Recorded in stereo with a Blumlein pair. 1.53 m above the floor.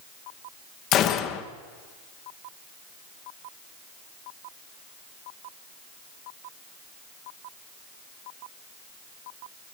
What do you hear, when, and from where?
0.9 s a gunshot: 35° left, 1.1 m